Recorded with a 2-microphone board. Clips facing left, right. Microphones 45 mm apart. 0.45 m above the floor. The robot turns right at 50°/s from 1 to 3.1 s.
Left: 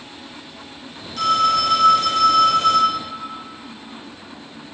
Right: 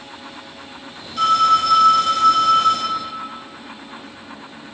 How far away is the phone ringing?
About 0.8 m.